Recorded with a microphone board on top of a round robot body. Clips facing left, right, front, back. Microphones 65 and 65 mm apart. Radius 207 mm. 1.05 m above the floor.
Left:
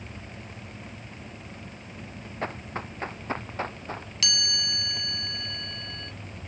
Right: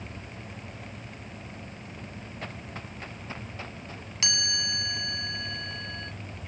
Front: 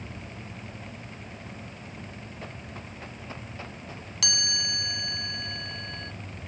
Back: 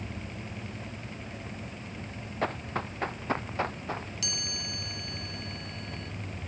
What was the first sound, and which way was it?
Running footsteps, 150° left.